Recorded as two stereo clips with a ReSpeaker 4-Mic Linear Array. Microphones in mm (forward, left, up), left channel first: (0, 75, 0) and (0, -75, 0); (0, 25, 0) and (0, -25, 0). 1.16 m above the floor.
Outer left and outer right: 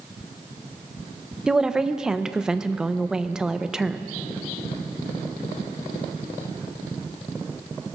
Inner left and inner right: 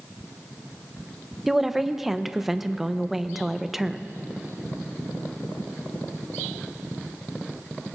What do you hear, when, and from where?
1.5 s a woman speaking: 5° right (ahead or behind), 0.6 m